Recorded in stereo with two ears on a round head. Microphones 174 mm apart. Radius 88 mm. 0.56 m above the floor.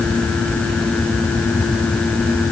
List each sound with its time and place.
Only background noise.